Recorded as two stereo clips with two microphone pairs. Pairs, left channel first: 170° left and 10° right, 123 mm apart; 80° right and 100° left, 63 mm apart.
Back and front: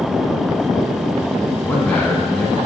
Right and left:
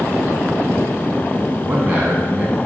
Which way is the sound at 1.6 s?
110° left.